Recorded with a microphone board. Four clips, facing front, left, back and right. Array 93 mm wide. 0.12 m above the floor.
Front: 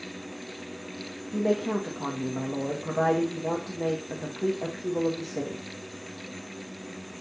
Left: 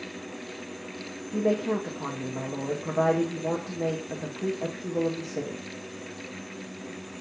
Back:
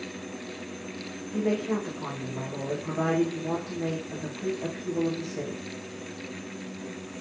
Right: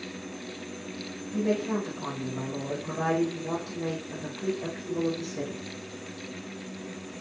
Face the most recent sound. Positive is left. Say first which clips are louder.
# left 2 dB, front 1 dB
turn(degrees=35)